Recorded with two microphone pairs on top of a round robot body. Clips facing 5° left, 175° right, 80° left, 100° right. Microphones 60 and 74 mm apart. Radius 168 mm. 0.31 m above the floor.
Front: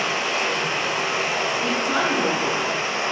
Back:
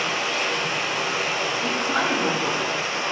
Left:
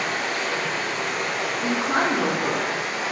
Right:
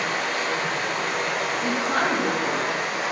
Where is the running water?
55° right, 0.7 m.